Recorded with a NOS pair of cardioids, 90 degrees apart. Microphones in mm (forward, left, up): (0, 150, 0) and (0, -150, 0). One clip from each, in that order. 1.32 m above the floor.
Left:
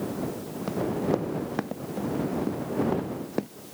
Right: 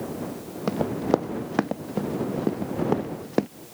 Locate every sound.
0.7 s running footsteps: 45° right